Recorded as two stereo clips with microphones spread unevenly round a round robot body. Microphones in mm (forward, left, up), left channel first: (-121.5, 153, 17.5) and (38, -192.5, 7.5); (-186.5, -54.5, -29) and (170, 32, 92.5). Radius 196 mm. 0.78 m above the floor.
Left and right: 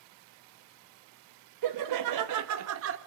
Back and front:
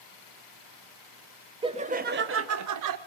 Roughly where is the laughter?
Right.